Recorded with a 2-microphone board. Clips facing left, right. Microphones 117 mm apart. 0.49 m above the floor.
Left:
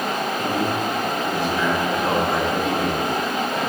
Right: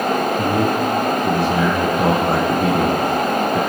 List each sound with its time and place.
0.4 s a man speaking: 65° right (ahead or behind), 6.5 m